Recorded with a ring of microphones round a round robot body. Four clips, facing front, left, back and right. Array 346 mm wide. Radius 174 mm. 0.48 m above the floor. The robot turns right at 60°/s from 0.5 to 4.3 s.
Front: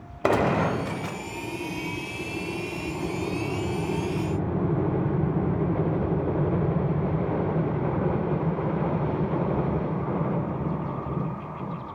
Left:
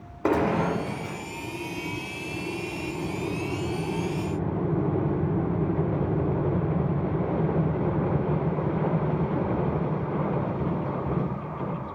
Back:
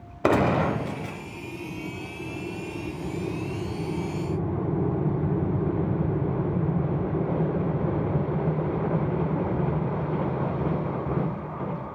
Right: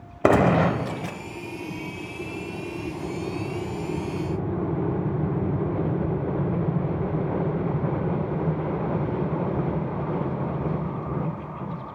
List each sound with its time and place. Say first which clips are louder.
0.2 s a gunshot: right 5 dB, back 1 dB; 100° right, 0.6 m; by 1.2 s 55° right, 0.6 m